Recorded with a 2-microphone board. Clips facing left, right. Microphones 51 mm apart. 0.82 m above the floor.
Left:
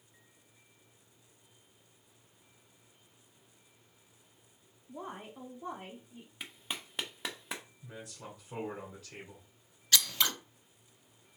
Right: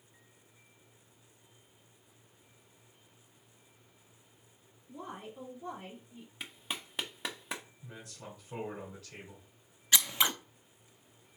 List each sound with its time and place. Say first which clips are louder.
4.9 s a woman speaking: left 1 dB; 30° left (ahead or behind), 1.3 m; by 6.3 s 25° left (ahead or behind), 2 m
6.4 s a clap: right 1 dB; centre (ahead or behind), 0.8 m
7.8 s a man speaking: left 1 dB; 5° left (ahead or behind), 2.0 m
9.9 s scissors: right 1 dB; 20° right (ahead or behind), 0.5 m